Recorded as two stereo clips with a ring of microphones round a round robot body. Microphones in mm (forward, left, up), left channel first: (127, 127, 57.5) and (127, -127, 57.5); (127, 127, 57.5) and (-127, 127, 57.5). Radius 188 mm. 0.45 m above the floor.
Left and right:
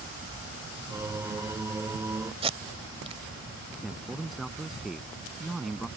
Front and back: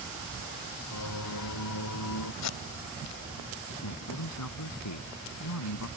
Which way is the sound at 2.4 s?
20° right.